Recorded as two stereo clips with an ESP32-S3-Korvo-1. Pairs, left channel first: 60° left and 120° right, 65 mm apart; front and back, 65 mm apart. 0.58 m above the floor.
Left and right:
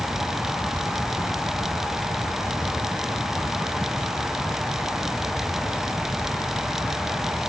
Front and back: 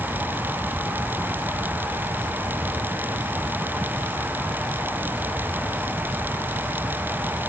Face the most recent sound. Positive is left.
No sound to turn to.